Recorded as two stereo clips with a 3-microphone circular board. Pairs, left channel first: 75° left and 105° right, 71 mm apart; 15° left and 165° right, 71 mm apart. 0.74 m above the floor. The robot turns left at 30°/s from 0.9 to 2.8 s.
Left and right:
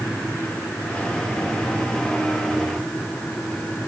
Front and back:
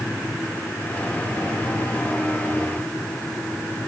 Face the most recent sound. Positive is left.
No sound to turn to.